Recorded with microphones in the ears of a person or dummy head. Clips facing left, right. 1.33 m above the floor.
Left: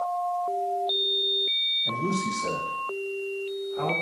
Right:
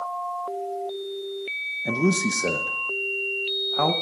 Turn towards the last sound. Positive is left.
turn(degrees=-65)  # may be behind; listen again after turning